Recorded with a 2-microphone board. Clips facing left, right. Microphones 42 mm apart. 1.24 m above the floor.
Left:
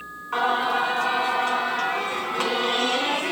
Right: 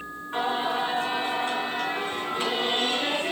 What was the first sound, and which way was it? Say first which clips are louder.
Singing: left 4 dB; 80° left.